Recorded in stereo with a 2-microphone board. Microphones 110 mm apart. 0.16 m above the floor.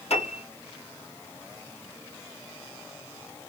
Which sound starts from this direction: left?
A piano, at 0.1 s.